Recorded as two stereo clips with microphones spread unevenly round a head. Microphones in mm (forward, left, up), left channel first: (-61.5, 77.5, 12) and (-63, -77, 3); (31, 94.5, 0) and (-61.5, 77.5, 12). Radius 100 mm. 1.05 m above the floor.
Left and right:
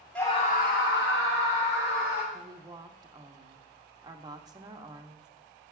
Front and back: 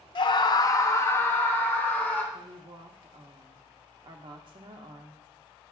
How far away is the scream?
About 0.6 m.